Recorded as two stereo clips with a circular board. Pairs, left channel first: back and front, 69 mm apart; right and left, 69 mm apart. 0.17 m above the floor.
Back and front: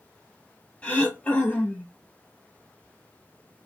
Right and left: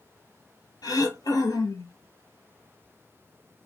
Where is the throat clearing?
105° right, 0.8 m.